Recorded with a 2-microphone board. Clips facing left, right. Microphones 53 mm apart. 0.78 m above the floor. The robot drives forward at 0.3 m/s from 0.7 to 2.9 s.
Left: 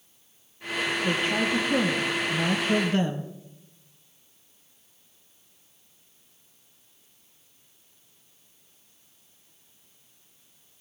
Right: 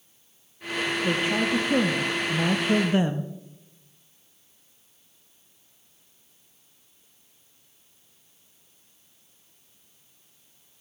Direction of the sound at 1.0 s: 10° right (ahead or behind).